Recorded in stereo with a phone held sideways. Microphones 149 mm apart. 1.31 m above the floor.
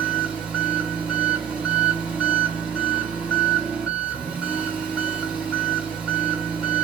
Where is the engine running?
5° right (ahead or behind), 2.5 m.